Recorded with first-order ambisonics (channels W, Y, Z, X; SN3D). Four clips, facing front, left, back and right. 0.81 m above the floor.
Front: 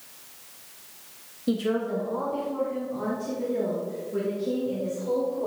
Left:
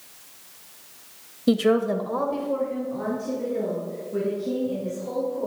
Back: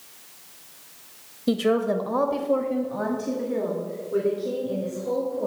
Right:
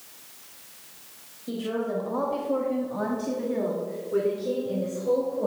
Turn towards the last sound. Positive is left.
turn(degrees=-125)